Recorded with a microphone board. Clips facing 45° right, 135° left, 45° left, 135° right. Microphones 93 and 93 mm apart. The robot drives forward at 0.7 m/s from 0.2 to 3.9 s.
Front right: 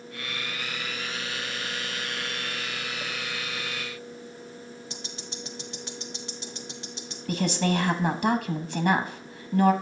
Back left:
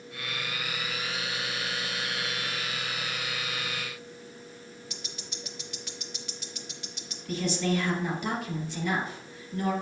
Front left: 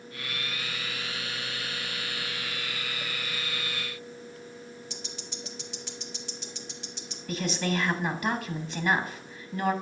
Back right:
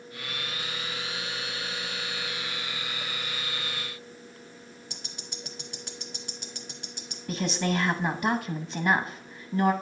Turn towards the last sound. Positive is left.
turn(degrees=-75)